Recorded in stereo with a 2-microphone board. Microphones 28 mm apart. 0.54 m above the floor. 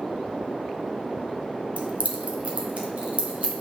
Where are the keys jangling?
60° right (ahead or behind), 0.9 m; by 3.6 s 50° right (ahead or behind), 2.5 m.